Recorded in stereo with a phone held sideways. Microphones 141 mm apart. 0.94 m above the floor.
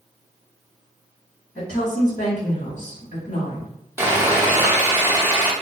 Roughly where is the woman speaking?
Left.